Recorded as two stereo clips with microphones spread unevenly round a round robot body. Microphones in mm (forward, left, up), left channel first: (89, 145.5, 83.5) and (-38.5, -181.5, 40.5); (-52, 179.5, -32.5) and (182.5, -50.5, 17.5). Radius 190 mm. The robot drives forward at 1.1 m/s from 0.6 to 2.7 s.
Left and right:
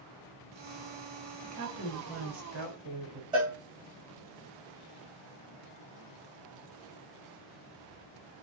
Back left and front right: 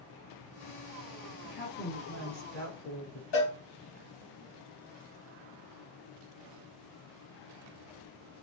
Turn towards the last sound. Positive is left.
turn(degrees=170)